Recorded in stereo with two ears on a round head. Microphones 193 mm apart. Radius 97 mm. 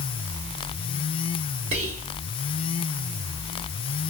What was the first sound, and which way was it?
Whispering, 70° right (ahead or behind).